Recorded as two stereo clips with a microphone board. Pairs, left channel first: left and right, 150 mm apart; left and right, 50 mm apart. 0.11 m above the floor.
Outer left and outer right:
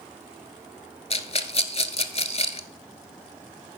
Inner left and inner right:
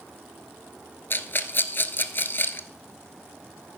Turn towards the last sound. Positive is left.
turn(degrees=45)  # may be behind; listen again after turning